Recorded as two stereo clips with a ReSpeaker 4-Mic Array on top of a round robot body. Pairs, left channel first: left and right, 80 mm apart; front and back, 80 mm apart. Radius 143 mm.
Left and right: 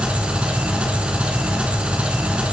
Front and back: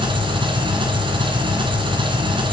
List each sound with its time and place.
0.0 s an engine running: 165° right, 2.5 m